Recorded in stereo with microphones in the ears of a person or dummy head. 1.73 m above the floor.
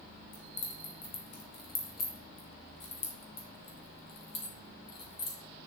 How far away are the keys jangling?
About 1.9 m.